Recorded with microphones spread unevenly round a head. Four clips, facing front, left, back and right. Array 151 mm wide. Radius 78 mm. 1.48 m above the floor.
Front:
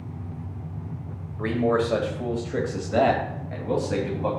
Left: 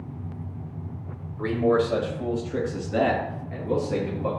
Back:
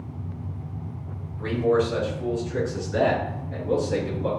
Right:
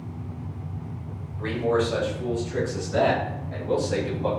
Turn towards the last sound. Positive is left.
turn(degrees=-15)